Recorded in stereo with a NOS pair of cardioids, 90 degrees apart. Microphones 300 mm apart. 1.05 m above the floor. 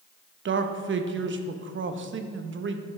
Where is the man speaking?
40° right, 0.9 m.